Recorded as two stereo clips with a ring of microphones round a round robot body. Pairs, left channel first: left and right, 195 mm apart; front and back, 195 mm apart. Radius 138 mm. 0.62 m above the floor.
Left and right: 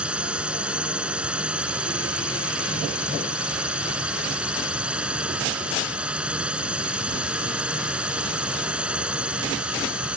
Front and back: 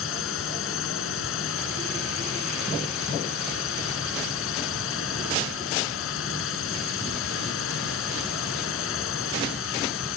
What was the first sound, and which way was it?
A drone, 5° right.